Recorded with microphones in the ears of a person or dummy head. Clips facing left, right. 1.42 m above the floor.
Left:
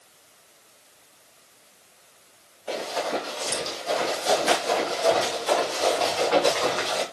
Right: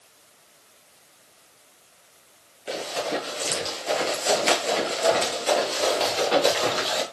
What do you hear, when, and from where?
2.7 s running footsteps: 30° right (ahead or behind), 2.0 m; by 7.0 s 40° right (ahead or behind), 2.5 m